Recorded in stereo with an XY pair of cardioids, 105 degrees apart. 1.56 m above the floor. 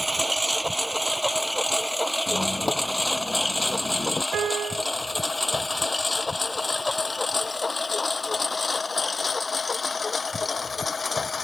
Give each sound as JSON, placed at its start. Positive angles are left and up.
{"t": 0.0, "sound": "a lawn mower", "azimuth_deg": -5}
{"t": 2.3, "sound": "a squeak", "azimuth_deg": 25}
{"t": 4.3, "sound": "a piano", "azimuth_deg": -65}